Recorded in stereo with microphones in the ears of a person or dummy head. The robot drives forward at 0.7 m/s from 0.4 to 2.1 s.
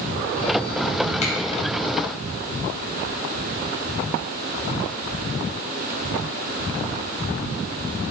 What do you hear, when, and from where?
1.2 s a finger snap: 45° left (ahead or behind), 5 m